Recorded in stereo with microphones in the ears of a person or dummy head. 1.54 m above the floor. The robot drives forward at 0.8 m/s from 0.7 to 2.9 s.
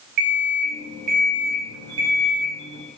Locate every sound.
0.2 s an alarm clock: 50° right (ahead or behind), 1.0 m; by 2.9 s 20° right (ahead or behind), 2 m